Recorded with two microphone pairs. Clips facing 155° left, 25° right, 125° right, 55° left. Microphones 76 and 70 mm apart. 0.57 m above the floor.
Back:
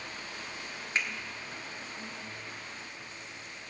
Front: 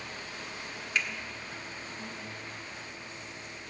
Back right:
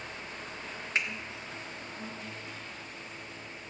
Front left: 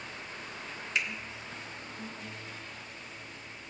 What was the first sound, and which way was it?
A finger snap, 160° right.